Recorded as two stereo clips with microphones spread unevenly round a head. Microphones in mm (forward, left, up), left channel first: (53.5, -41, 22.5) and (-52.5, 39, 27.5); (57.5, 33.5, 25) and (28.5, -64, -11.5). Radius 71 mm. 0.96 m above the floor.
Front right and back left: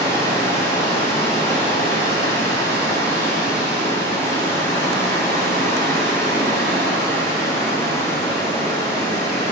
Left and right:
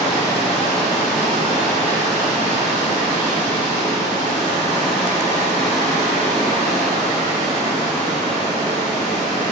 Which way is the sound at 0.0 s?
105° right.